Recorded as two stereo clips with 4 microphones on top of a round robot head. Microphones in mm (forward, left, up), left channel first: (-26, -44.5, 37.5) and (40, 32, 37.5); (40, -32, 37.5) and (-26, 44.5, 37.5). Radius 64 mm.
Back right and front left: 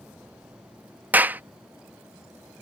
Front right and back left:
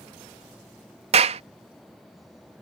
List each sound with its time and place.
1.1 s a clap: 120° left